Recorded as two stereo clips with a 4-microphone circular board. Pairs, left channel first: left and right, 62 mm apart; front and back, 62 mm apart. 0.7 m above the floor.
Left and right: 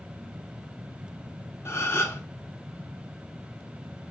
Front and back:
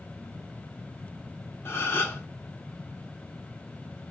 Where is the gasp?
45° left, 0.6 m.